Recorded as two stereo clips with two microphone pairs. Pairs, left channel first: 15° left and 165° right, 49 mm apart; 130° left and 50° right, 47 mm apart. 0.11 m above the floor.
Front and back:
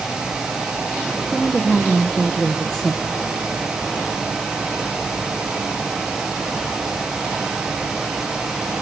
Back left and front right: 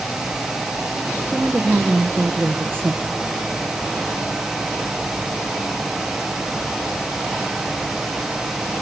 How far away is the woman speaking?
About 2 m.